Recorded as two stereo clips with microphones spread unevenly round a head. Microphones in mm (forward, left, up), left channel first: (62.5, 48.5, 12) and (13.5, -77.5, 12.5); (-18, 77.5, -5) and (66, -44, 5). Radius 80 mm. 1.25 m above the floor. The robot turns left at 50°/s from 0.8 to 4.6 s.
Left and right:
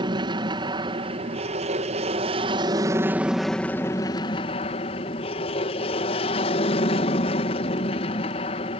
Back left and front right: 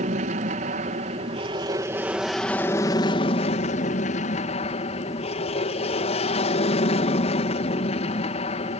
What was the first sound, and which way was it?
An aircraft, 70° right.